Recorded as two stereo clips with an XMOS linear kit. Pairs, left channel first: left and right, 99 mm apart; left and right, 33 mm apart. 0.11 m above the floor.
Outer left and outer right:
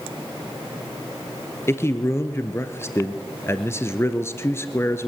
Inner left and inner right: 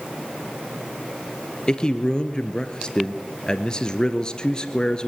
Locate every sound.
1.7 s a man speaking: 25° left (ahead or behind), 1.5 m